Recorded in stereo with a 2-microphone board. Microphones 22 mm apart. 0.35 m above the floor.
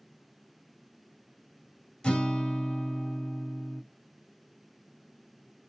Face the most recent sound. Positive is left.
turn(degrees=50)  # may be behind; listen again after turning